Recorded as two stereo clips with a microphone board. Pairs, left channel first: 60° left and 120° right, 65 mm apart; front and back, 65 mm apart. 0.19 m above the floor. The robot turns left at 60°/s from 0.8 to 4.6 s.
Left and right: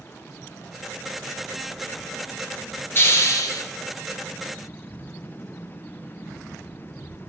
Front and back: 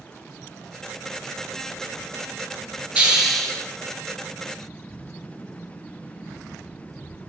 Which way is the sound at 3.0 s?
110° left.